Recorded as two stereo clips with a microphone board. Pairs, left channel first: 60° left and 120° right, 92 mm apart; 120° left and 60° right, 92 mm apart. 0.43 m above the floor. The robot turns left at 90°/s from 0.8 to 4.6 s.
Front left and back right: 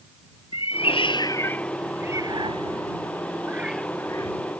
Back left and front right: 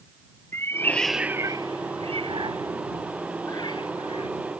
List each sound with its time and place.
0.5 s a cat meowing: 55° left; by 4.3 s 100° left